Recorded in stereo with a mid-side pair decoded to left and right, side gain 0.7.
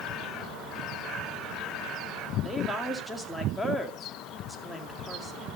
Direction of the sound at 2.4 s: 5° left.